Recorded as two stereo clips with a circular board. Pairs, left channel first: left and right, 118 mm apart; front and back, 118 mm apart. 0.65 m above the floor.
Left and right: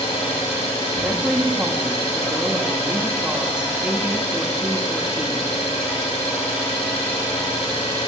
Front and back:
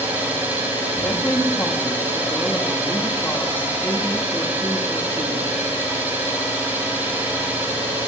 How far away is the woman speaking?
About 1.1 m.